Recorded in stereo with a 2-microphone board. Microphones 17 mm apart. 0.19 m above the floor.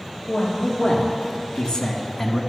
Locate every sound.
0.3 s a man speaking: 70° left (ahead or behind), 3 m; by 2.4 s 25° left (ahead or behind), 1.2 m